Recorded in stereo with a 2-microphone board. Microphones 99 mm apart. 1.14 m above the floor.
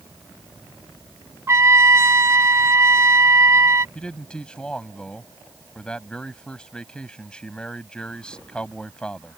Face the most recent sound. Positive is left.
turn(degrees=10)  # may be behind; listen again after turning